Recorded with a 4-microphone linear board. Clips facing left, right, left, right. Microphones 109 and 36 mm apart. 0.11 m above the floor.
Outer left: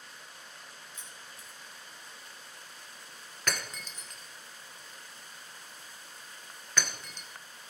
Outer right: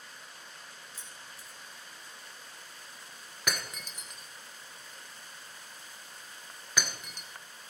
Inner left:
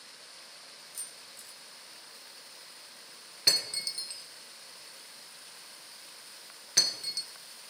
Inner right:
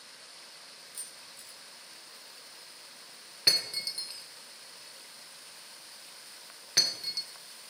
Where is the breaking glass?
10° right (ahead or behind), 1.2 m.